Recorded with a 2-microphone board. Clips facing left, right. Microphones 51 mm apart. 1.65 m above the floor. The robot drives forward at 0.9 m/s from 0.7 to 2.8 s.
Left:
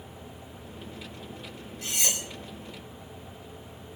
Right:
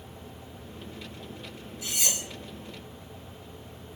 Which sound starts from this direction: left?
Cutlery clinking, at 1.8 s.